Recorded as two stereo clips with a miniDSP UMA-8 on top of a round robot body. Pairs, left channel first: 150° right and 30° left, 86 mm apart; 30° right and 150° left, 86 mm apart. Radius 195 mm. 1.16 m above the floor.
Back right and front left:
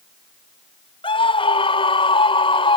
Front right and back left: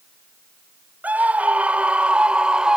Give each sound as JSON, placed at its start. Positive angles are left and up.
{"t": 1.0, "sound": "a scream", "azimuth_deg": -135}